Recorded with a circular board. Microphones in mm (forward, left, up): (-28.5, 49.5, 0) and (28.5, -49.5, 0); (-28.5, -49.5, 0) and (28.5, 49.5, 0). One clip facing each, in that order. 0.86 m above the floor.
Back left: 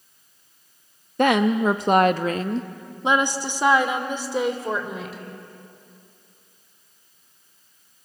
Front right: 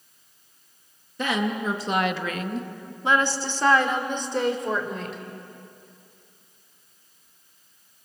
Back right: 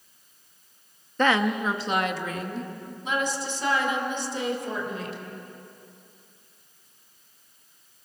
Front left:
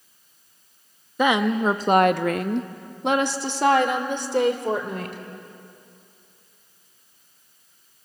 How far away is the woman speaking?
About 0.8 m.